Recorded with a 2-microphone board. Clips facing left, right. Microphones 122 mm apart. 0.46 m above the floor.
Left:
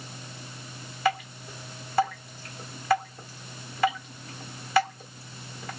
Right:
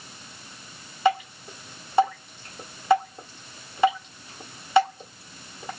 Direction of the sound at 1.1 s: 25° right (ahead or behind).